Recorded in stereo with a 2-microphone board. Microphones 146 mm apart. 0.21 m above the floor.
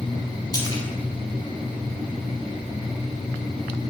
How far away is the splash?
About 0.8 m.